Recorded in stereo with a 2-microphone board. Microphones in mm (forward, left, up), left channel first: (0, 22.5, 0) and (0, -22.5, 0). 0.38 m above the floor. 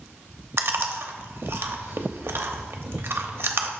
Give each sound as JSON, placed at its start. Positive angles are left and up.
{"t": 0.6, "sound": "chewing", "side_deg": -60, "distance_m": 0.7}